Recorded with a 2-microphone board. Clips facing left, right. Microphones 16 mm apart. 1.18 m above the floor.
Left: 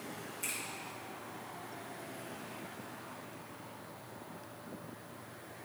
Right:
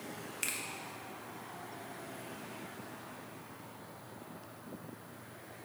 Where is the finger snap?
60° right (ahead or behind), 0.9 m.